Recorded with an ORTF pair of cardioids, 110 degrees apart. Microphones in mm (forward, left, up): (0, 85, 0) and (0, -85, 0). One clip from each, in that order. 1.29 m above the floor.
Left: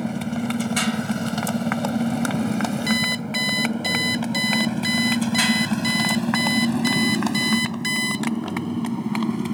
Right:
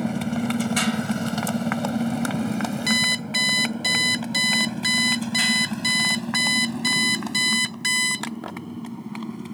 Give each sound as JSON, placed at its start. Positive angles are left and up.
{"t": 0.0, "sound": "a motorcycle", "azimuth_deg": -5}
{"t": 2.9, "sound": "an alarm clock", "azimuth_deg": -10}